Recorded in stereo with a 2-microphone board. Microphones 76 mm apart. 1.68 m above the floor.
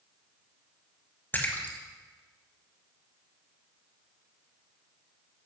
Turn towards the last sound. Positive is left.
turn(degrees=25)  # may be behind; listen again after turning